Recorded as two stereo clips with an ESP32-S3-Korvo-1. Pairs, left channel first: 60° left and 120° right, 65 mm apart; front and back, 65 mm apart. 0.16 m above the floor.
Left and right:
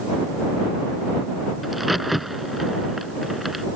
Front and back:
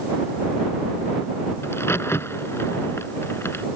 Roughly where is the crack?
Ahead right.